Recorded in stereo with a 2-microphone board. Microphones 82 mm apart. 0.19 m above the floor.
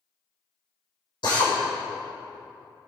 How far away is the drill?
About 4.5 m.